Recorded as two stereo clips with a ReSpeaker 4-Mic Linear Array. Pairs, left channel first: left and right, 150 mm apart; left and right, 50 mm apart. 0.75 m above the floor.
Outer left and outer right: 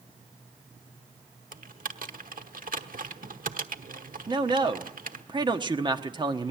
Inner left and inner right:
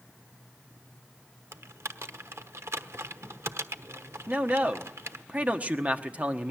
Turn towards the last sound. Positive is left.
turn(degrees=-30)  # may be behind; listen again after turning